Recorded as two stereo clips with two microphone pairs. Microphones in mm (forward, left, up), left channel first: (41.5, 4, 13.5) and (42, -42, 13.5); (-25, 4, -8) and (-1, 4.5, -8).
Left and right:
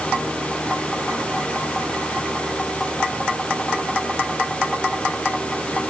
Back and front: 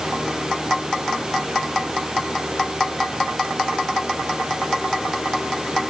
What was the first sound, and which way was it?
Only background noise.